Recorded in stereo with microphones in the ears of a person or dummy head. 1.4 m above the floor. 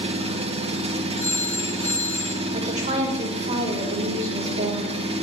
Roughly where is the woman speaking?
Right.